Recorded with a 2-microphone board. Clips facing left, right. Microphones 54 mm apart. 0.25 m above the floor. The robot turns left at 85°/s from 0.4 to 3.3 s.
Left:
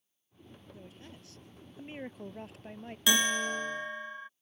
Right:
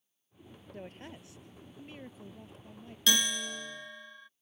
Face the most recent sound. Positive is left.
turn(degrees=40)  # may be behind; listen again after turning